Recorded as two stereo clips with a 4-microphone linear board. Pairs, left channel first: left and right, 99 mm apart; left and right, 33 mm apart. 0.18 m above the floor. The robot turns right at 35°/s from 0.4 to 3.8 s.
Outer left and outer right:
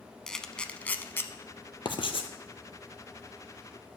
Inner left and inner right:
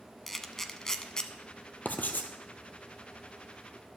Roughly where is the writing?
Left.